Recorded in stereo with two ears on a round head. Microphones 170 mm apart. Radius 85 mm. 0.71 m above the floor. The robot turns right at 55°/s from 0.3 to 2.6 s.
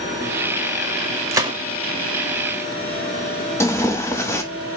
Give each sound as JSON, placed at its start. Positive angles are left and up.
{"t": 1.3, "sound": "a gunshot", "side_deg": -15, "distance_m": 0.7}
{"t": 3.6, "sound": "tearing paper", "side_deg": 15, "distance_m": 0.8}